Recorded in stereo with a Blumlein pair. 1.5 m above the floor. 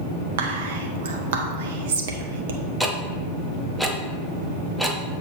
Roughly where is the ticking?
Ahead.